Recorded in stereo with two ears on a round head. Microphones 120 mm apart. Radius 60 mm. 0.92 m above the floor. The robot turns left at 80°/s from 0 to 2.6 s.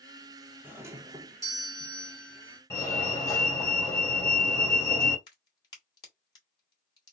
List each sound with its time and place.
0.6 s a doorbell: 15° right (ahead or behind), 0.9 m; by 2.6 s 5° left (ahead or behind), 0.9 m
2.7 s a fire alarm: 20° left (ahead or behind), 1.8 m
5.3 s a crack: 35° left (ahead or behind), 2.5 m